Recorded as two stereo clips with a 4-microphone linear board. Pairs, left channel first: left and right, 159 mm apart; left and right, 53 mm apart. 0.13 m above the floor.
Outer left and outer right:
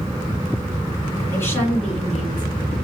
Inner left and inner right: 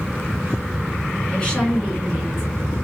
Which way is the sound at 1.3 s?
20° left (ahead or behind).